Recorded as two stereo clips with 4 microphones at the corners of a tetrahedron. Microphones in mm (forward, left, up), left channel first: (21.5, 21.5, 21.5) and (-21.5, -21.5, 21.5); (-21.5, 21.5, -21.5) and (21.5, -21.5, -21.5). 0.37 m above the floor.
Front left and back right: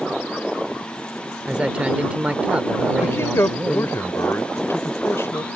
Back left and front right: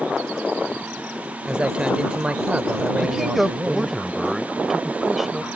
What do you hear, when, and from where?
1.5 s a man speaking: 90° right
3.0 s a man speaking: 40° left